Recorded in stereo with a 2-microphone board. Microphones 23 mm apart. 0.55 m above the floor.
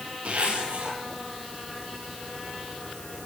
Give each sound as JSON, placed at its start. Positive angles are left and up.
{"t": 0.2, "sound": "a zipper", "side_deg": -80, "distance_m": 7.0}